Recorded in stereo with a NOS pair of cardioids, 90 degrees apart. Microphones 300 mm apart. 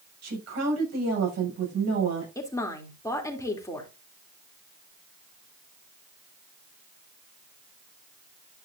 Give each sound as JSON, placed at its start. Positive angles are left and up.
{"t": 0.2, "sound": "a woman speaking", "azimuth_deg": -55, "distance_m": 7.0}
{"t": 2.4, "sound": "a woman speaking", "azimuth_deg": 10, "distance_m": 3.0}